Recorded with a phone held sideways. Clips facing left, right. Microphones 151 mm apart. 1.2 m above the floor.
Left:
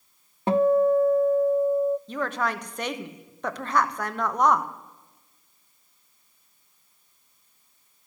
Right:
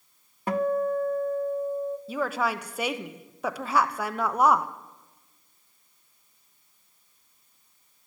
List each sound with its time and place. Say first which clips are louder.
0.5 s a guitar: left 6 dB; 25° left (ahead or behind), 0.5 m
2.1 s a woman speaking: even; 5° right (ahead or behind), 1.1 m